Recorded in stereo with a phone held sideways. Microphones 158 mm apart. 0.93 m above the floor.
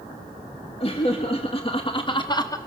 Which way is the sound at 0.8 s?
35° left (ahead or behind).